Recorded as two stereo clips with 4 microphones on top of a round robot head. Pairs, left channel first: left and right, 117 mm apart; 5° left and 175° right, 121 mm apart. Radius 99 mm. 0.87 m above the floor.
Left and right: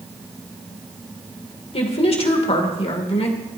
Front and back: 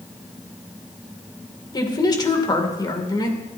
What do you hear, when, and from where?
1.7 s a woman speaking: 60° left, 2.5 m